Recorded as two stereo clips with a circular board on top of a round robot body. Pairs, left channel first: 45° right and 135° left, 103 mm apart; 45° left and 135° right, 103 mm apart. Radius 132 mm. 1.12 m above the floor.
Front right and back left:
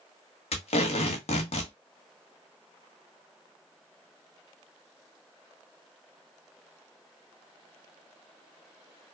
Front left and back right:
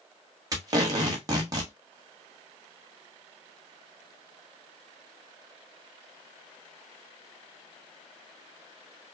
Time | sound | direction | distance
0.5 | tape being pulled | 75° right | 1.2 m